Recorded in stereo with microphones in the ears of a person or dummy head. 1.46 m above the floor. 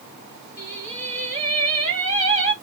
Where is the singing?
35° right (ahead or behind), 0.9 m.